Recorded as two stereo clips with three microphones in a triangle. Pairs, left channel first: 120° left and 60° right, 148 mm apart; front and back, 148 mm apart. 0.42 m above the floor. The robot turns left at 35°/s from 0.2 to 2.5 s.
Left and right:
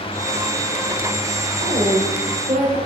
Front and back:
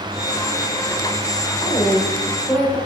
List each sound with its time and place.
1.6 s a woman speaking: 45° right, 1.2 m; by 2.8 s 75° right, 1.2 m